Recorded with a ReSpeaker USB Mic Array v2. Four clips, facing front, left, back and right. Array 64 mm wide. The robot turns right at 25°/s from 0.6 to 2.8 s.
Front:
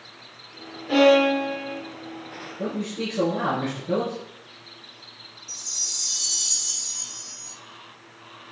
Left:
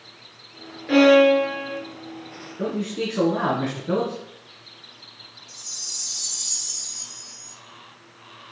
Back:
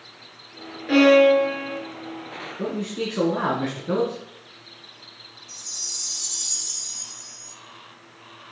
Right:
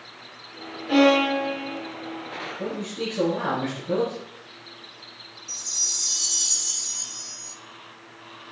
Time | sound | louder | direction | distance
0.9 | a violin | left 4 dB, back 3 dB | 135° left | 5.5 m
2.6 | a man speaking | left 6 dB, back 1 dB | 140° left | 3 m
5.5 | a chime | right 4 dB, front 1 dB | 50° right | 2 m